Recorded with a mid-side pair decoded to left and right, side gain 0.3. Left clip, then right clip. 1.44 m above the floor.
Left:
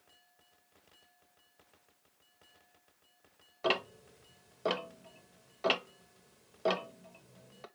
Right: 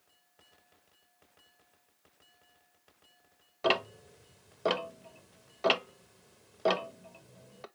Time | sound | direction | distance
3.6 | ticking | 30° right | 0.6 m